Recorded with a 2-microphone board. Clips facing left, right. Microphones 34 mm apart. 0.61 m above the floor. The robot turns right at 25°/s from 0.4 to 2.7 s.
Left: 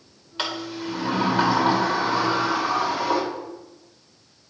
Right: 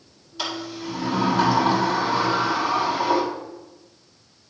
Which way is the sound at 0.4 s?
125° left.